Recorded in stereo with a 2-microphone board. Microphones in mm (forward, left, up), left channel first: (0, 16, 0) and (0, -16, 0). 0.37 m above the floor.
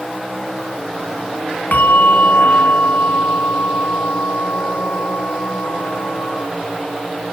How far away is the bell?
About 2 m.